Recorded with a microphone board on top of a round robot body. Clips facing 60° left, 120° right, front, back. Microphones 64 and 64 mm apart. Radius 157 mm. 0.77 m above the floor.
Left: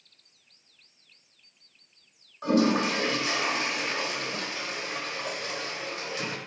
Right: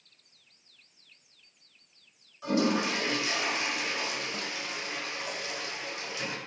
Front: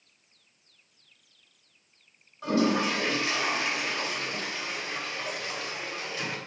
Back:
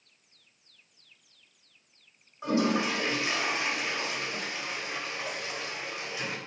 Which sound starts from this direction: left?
A toilet flushing, at 2.4 s.